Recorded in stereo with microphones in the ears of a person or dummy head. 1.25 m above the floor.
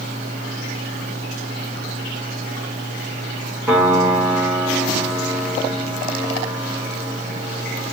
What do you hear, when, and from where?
3.7 s a piano: 10° right (ahead or behind), 1.0 m